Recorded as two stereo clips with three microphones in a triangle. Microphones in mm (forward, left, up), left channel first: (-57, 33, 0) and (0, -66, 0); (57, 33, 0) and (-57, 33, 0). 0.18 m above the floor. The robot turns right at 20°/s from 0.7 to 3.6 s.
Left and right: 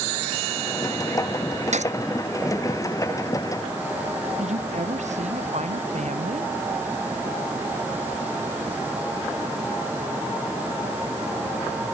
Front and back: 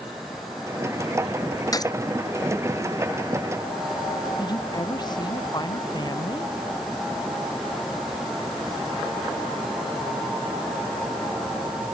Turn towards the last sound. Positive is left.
turn(degrees=-55)